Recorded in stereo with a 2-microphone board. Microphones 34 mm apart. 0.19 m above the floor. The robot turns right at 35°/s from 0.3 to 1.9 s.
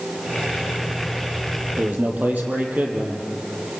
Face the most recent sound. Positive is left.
turn(degrees=-55)  # may be behind; listen again after turning